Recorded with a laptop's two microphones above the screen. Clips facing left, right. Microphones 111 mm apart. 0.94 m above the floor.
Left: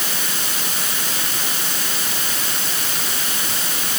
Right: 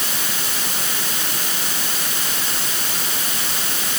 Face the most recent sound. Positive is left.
No sound to turn to.